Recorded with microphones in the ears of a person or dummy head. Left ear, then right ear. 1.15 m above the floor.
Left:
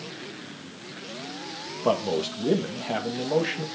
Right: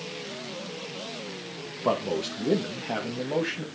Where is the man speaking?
15° left (ahead or behind), 1.8 m.